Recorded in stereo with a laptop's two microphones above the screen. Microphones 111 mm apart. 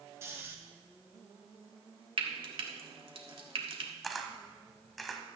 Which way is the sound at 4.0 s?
Centre (ahead or behind).